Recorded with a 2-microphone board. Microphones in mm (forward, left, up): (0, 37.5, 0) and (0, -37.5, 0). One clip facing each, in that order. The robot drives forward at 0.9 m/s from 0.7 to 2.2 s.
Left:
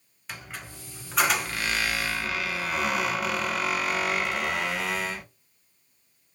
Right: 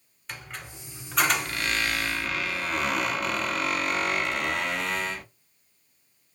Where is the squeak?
Centre (ahead or behind), 1.4 m; by 5.2 s 5° left (ahead or behind), 1.0 m.